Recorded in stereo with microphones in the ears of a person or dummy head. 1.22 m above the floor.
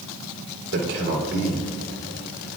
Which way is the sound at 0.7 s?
70° right (ahead or behind).